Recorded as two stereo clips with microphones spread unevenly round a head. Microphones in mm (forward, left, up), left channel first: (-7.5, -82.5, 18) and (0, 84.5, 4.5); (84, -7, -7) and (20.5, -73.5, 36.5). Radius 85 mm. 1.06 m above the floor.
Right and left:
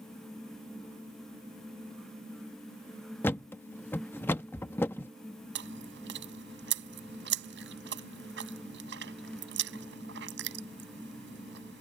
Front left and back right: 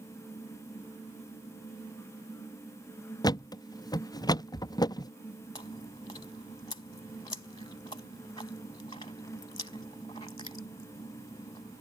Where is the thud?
20° right.